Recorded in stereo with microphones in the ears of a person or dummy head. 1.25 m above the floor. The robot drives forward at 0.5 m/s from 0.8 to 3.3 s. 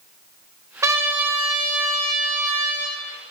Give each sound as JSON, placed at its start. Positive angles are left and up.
{"t": 0.8, "sound": "a trumpet", "side_deg": -15, "distance_m": 0.5}